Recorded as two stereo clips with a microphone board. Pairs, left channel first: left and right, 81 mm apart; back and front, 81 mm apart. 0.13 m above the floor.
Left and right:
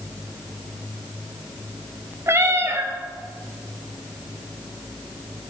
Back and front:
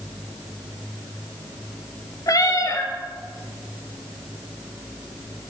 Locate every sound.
2.3 s a cat meowing: 140° right, 0.7 m